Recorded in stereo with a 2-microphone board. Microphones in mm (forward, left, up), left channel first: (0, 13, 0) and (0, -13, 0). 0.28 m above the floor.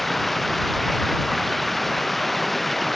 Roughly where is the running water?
Centre.